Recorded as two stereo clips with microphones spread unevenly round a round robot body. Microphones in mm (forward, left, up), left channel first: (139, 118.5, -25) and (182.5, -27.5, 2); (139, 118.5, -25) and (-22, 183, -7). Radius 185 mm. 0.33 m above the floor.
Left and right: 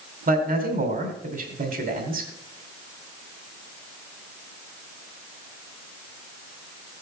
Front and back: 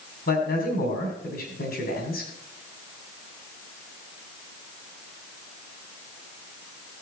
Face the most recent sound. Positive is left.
turn(degrees=-50)